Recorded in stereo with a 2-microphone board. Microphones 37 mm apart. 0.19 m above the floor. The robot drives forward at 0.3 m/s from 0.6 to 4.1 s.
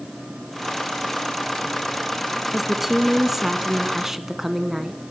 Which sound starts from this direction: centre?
A woman speaking, at 2.5 s.